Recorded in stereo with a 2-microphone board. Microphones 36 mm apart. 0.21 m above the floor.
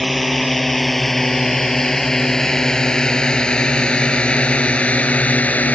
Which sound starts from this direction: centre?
A drone, at 0.0 s.